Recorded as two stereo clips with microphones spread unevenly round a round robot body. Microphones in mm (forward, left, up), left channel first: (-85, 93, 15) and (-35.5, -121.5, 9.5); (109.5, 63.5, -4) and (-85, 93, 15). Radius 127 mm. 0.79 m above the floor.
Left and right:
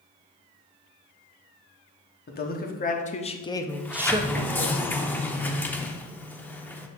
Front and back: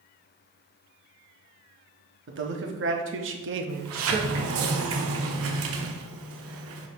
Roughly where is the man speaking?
Behind left.